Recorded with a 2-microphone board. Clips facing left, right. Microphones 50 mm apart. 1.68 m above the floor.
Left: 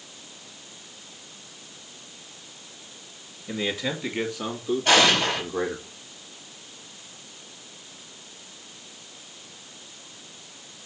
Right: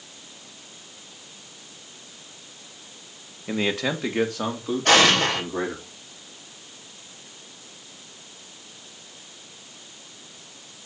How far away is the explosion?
About 3.5 m.